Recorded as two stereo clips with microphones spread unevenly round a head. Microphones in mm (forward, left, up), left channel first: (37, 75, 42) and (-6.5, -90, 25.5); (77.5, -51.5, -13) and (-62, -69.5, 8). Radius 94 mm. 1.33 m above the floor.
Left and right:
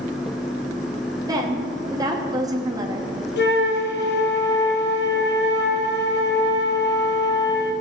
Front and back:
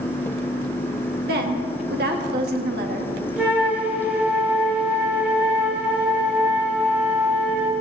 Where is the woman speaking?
175° right, 2.5 m.